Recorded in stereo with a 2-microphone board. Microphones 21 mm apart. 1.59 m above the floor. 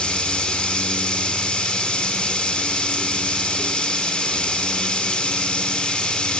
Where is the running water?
55° left (ahead or behind), 3.5 m.